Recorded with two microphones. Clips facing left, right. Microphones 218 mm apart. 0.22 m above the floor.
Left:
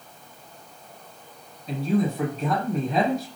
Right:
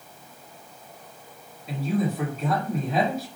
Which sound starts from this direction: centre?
A man speaking, at 1.7 s.